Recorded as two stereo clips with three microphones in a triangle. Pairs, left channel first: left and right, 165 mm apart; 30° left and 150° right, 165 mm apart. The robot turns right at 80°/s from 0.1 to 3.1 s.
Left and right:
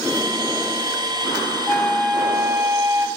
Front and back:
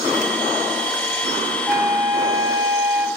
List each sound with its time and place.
1.7 s a flute: 155° left, 0.6 m; by 3.1 s 90° right, 0.6 m